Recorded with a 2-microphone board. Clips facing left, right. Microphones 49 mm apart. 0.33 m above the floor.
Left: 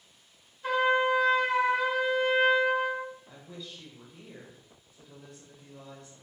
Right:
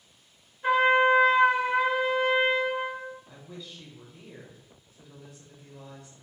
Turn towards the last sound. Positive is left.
turn(degrees=0)  # may be behind; listen again after turning